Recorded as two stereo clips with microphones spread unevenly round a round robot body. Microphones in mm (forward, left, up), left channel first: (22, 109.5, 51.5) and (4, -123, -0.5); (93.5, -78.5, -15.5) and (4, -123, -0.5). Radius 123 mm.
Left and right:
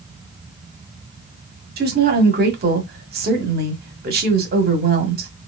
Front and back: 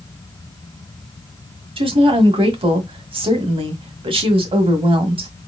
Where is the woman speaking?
125° right, 1.7 m.